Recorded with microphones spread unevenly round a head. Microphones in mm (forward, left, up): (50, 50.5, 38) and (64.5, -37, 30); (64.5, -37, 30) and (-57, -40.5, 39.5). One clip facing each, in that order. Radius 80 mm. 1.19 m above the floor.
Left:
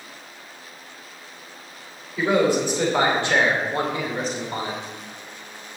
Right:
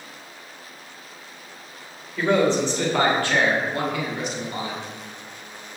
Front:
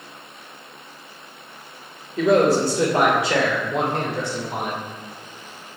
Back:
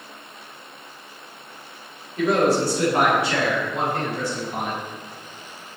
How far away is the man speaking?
About 3.5 m.